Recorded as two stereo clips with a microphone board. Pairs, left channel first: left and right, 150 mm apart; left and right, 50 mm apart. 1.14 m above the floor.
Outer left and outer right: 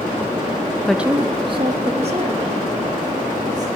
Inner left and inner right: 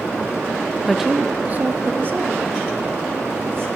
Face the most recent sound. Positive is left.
turn(degrees=-55)  # may be behind; listen again after turning